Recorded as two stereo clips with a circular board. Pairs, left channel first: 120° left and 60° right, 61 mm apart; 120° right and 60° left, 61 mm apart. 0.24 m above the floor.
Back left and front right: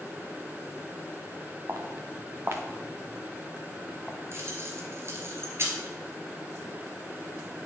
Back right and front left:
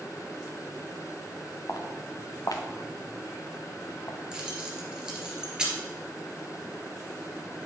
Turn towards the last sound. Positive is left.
turn(degrees=-15)